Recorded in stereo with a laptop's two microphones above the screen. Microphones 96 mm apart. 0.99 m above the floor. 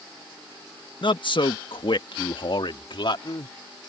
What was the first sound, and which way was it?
A man speaking, 55° left (ahead or behind).